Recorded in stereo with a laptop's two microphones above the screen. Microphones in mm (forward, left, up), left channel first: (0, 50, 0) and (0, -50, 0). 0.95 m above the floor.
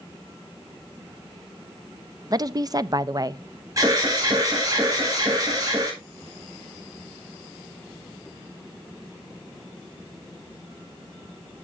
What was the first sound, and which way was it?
A woman speaking, 40° right (ahead or behind).